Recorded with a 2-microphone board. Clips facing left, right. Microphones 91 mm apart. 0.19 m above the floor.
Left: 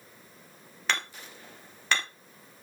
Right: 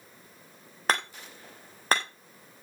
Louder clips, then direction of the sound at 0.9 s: Right 4 dB; 40° right (ahead or behind).